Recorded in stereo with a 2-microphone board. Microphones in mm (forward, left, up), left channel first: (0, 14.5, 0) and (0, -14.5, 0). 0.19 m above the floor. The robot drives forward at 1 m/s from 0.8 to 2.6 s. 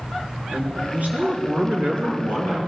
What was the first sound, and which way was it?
A man speaking, 60° right (ahead or behind).